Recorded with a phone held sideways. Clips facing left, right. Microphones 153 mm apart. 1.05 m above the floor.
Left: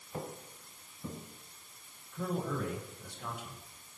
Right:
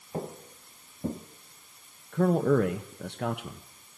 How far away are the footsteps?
About 1.3 m.